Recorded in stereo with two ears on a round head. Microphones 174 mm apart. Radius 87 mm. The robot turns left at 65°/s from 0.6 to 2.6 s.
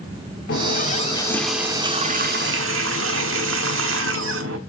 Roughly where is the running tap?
Ahead left.